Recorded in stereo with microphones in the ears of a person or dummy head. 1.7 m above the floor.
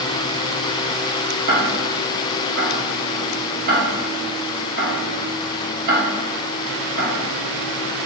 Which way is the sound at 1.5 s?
55° right (ahead or behind).